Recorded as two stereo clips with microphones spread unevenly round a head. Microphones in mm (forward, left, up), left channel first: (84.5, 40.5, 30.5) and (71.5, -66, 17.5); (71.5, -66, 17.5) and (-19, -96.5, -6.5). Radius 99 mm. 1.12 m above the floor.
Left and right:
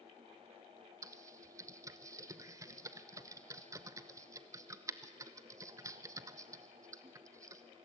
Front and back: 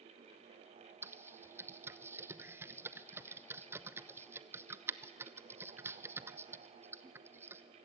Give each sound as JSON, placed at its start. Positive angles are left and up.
{"t": 1.0, "sound": "typing on a keyboard", "azimuth_deg": -130, "distance_m": 0.7}